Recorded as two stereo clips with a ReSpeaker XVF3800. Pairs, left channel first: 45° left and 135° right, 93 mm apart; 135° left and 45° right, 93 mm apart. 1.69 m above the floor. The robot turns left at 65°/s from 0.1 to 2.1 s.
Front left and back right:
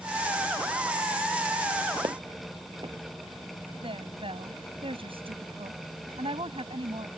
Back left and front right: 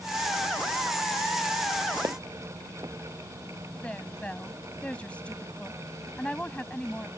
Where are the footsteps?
95° right; by 3.0 s 100° right.